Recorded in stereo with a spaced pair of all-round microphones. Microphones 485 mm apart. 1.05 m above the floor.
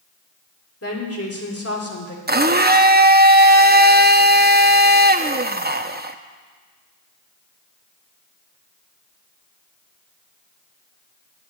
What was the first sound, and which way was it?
A woman speaking, 30° left (ahead or behind).